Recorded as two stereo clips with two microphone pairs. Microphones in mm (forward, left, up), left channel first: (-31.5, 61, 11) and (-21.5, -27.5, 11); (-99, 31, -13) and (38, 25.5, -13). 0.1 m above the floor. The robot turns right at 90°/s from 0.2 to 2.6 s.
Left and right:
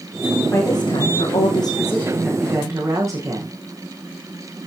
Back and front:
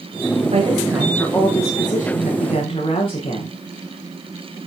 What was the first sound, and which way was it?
A woman speaking, 35° left.